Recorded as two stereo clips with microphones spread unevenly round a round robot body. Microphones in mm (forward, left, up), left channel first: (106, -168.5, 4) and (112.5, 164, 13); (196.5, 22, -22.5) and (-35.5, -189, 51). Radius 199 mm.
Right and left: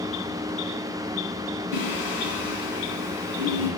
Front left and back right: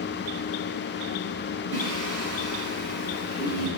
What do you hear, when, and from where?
1.7 s singing: 95° right, 4 m